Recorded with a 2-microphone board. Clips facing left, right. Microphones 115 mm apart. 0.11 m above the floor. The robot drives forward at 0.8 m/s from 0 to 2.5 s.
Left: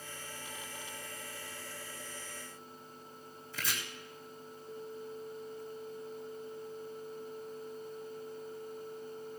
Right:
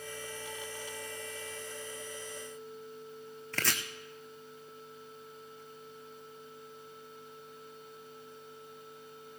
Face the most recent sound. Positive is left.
turn(degrees=-75)  # may be behind; listen again after turning